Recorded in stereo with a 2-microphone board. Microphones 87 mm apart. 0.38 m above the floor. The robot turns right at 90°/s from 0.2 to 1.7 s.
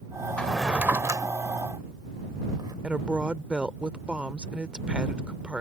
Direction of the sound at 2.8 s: 15° right (ahead or behind).